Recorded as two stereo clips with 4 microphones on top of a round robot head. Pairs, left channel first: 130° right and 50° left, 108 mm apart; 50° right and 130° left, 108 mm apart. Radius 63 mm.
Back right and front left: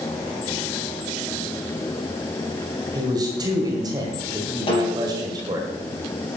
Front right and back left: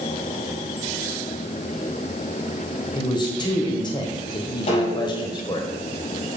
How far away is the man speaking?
About 2 m.